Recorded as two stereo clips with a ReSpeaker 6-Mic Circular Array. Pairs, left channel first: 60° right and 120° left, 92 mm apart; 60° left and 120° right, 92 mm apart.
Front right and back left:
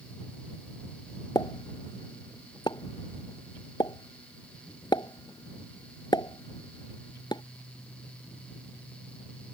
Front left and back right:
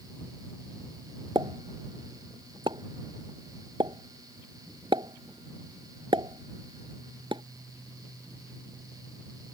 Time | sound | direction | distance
1.4 | a pop | 100° right | ?